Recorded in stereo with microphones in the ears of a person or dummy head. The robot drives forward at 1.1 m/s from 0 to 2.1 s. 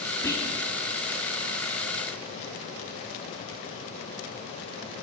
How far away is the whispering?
About 0.8 m.